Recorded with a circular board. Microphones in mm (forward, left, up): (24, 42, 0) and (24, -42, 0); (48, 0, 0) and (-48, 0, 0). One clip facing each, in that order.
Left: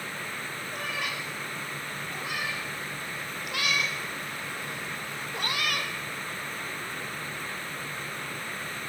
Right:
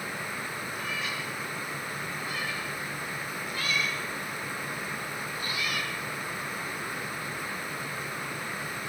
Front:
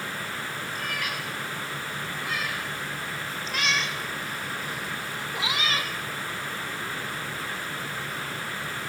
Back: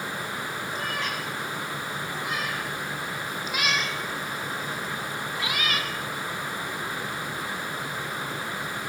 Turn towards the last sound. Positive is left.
turn(degrees=60)